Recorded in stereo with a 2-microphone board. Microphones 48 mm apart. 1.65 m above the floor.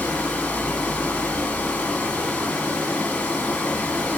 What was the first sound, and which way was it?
Running water, 20° left (ahead or behind).